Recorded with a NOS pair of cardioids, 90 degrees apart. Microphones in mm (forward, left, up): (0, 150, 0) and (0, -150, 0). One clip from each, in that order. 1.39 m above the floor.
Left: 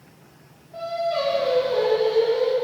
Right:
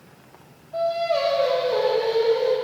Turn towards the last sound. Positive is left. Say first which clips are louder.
# right 3 dB
turn(degrees=-40)